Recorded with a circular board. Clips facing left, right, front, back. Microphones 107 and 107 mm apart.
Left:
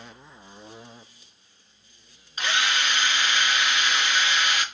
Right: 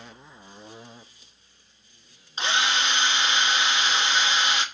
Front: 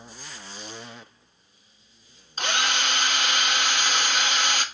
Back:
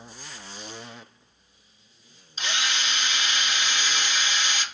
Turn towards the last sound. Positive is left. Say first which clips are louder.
# right 1 dB, front 4 dB
turn(degrees=-30)